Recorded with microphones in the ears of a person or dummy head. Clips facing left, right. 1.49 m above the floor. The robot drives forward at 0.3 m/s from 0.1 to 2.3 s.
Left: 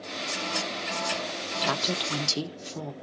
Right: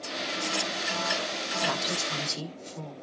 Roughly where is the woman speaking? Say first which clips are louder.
Left 3 dB; left.